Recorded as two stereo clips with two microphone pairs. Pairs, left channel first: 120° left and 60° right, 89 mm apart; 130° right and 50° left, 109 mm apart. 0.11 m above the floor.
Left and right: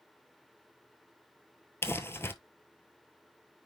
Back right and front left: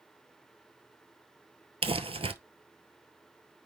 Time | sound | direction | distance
1.8 | crumpling | 65° left | 0.9 m